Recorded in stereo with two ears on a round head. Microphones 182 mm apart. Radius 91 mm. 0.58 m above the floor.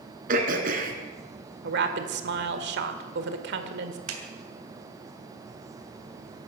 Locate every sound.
0.3 s throat clearing: 45° right (ahead or behind), 2.5 m
1.6 s a woman speaking: 55° right (ahead or behind), 1.8 m
4.1 s a clap: 75° right (ahead or behind), 2.5 m